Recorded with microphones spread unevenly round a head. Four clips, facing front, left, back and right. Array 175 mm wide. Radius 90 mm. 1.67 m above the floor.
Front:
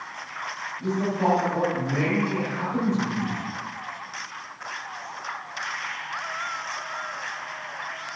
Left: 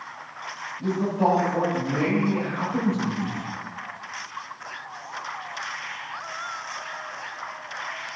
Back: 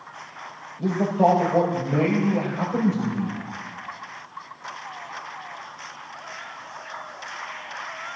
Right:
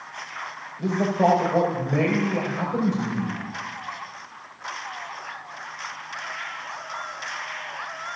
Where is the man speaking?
140° right, 7 m.